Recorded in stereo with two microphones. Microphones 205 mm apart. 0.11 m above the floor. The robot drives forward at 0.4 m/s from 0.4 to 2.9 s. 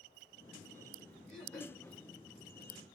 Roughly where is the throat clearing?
Centre.